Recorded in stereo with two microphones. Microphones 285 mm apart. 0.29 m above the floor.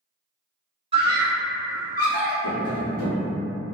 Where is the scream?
20° right (ahead or behind), 1.0 m; by 2.3 s 20° left (ahead or behind), 1.1 m.